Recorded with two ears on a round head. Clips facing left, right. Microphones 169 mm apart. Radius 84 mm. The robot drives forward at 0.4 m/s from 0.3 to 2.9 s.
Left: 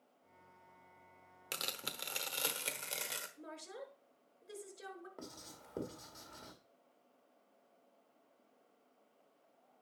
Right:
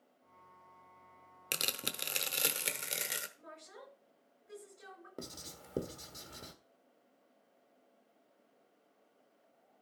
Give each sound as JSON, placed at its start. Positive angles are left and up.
{"t": 1.5, "sound": "tearing paper", "side_deg": -30, "distance_m": 0.8}
{"t": 3.4, "sound": "a woman speaking", "side_deg": 45, "distance_m": 5.5}
{"t": 5.2, "sound": "writing", "side_deg": -40, "distance_m": 1.5}